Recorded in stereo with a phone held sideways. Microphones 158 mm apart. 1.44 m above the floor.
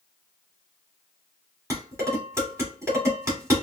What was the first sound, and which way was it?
Dishes clattering, 15° right (ahead or behind).